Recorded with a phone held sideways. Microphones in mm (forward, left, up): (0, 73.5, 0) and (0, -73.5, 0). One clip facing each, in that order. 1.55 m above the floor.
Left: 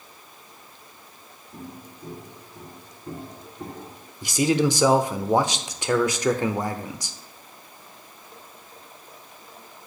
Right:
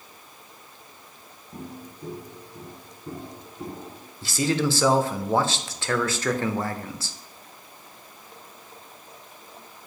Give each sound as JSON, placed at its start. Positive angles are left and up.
{"t": 1.5, "sound": "footsteps", "side_deg": -50, "distance_m": 2.0}
{"t": 4.2, "sound": "a man speaking", "side_deg": 15, "distance_m": 0.5}